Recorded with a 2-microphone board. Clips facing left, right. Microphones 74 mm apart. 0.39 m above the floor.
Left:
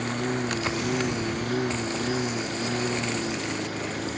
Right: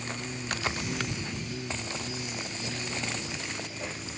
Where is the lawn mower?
60° left (ahead or behind).